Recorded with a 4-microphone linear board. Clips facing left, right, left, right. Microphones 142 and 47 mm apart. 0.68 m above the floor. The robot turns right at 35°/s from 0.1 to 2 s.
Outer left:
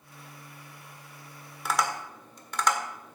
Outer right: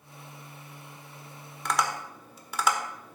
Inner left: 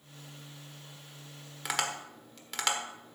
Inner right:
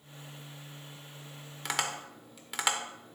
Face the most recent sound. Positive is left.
turn(degrees=-5)  # may be behind; listen again after turning